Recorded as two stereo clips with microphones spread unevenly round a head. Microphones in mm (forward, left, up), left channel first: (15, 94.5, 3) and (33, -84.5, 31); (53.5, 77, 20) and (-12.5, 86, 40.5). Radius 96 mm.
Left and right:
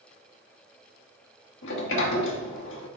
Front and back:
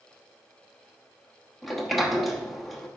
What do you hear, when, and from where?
1.6 s a sliding door: 80° left, 1.1 m